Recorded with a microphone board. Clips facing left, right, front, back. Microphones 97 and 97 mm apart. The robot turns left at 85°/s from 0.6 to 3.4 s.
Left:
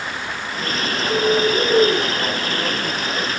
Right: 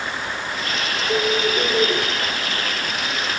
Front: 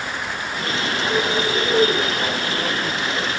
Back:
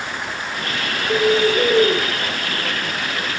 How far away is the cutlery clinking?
I don't hear cutlery clinking.